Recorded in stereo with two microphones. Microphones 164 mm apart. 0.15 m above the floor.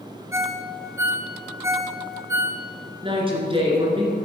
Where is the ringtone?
15° right (ahead or behind), 0.9 m.